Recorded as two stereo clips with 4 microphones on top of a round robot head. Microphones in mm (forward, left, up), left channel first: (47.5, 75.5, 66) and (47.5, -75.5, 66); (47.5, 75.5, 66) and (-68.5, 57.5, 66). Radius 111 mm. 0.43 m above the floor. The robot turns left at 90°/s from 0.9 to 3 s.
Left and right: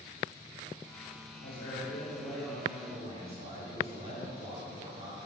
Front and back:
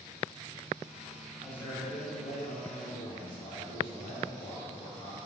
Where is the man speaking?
100° left, 2 m; by 5.2 s 45° right, 2 m.